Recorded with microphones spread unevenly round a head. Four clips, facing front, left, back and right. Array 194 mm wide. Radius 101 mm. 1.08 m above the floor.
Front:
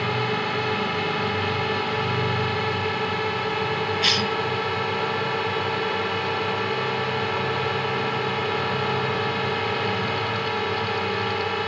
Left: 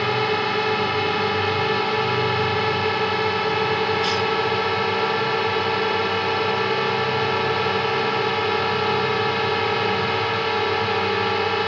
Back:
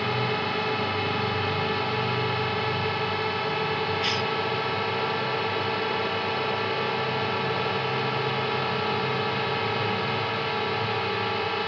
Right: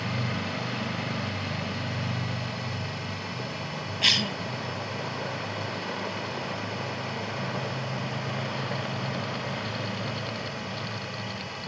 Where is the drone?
75° left.